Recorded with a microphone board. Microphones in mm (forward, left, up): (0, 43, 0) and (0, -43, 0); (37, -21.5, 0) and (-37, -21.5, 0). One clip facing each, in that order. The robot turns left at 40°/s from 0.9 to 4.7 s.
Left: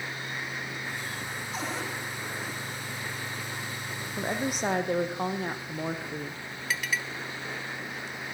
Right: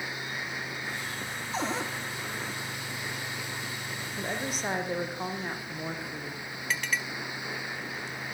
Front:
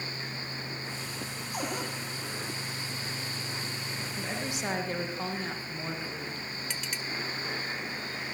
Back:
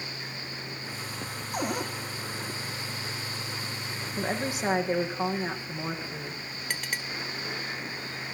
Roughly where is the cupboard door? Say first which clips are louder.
Right 4 dB, back 4 dB; behind right.